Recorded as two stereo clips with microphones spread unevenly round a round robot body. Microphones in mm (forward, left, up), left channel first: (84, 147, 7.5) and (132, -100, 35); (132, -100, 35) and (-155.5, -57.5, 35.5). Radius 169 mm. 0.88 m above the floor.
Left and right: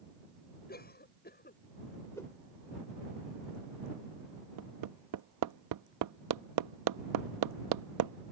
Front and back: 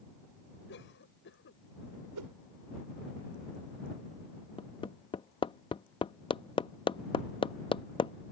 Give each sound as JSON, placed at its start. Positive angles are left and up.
{"t": 0.7, "sound": "a cough", "azimuth_deg": 50}
{"t": 2.1, "sound": "a whoosh", "azimuth_deg": -175}
{"t": 4.6, "sound": "hammering", "azimuth_deg": -85}